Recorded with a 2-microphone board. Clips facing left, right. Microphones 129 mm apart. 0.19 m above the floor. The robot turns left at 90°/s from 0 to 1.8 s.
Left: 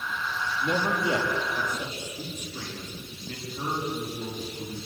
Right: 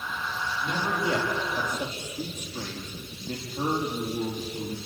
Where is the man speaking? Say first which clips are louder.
Left 2 dB; 75° left, 7 m; by 4.8 s 35° right, 7 m.